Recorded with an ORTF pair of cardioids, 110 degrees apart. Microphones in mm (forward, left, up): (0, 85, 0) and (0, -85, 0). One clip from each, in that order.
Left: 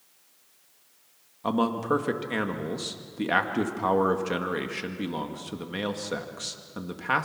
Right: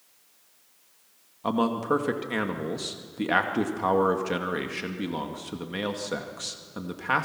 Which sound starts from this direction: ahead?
A man speaking, at 1.4 s.